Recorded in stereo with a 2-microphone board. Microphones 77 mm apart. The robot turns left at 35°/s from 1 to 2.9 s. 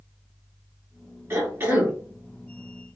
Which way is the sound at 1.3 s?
35° right (ahead or behind).